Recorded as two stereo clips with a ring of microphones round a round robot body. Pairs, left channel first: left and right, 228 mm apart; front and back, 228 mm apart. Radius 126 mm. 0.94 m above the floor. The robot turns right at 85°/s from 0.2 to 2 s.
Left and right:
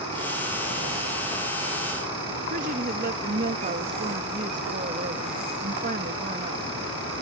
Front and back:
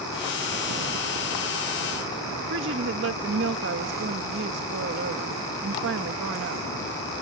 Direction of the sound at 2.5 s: 145° right.